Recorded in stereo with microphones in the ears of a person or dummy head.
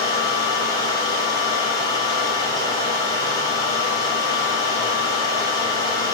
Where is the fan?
20° left (ahead or behind), 4 m.